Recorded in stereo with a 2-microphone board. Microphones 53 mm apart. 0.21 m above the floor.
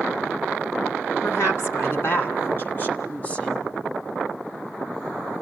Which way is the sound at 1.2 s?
55° left (ahead or behind).